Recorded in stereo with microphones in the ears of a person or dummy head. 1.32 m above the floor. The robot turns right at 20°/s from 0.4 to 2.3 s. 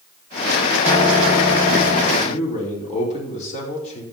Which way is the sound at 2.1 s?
35° left (ahead or behind).